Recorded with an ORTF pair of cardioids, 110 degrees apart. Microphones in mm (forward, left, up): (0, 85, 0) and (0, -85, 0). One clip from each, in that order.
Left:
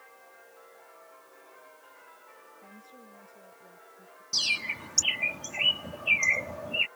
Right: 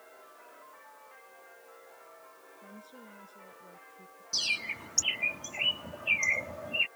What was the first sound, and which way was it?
A woman speaking, 15° right.